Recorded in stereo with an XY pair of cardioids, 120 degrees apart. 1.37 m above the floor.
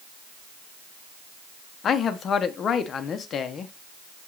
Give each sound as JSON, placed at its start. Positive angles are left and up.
{"t": 1.8, "sound": "a man speaking", "azimuth_deg": 45, "distance_m": 0.6}